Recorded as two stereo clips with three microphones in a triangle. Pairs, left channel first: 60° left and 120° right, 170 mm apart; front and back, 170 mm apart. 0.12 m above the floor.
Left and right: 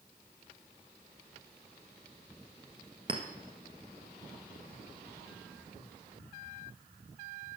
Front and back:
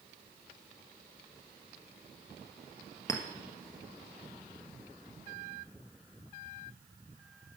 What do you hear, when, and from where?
3.1 s a clink: 65° right, 1.4 m